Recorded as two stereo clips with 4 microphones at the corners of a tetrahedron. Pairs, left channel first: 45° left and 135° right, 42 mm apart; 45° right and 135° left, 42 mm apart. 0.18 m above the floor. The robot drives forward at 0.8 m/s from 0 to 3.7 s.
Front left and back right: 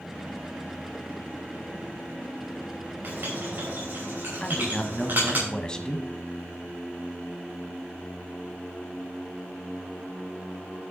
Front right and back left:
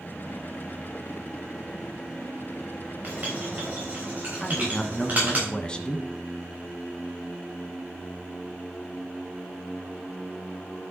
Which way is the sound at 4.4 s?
5° right.